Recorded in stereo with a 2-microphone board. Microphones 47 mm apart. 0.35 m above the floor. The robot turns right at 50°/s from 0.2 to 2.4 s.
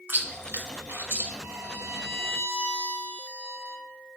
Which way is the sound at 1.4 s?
95° right.